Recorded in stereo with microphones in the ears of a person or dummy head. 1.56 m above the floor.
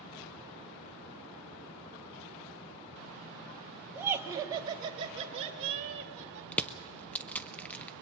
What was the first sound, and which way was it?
Laughter, 10° right (ahead or behind).